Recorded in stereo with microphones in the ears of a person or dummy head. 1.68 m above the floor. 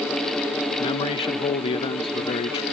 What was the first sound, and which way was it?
A man speaking, 30° left (ahead or behind).